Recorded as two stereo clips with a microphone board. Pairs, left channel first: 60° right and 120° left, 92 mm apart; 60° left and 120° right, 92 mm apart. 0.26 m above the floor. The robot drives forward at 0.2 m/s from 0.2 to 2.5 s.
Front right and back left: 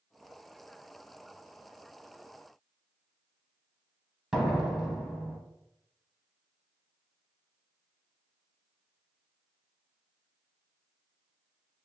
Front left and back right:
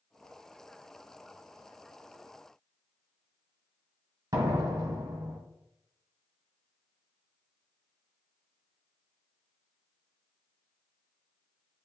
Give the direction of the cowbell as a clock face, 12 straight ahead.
No cowbell in this recording.